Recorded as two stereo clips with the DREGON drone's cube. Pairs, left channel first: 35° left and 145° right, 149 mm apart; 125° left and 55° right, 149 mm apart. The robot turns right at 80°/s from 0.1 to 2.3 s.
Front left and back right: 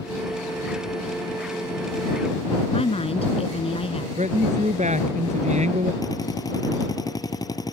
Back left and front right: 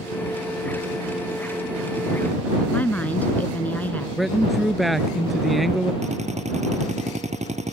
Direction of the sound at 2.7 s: 50° left.